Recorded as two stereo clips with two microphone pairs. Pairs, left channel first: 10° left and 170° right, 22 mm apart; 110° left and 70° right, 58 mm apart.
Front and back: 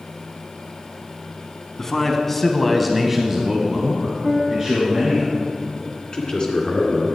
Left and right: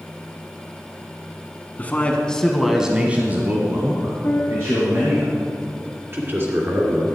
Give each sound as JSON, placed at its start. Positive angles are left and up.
{"t": 1.8, "sound": "a man speaking", "azimuth_deg": 65, "distance_m": 1.3}
{"t": 4.2, "sound": "a piano", "azimuth_deg": 150, "distance_m": 1.1}
{"t": 6.1, "sound": "a man speaking", "azimuth_deg": -30, "distance_m": 2.5}